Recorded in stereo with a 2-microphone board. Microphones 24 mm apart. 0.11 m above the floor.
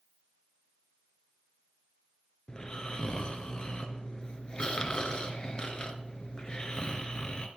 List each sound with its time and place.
2.5 s snoring: 35° left (ahead or behind), 1.6 m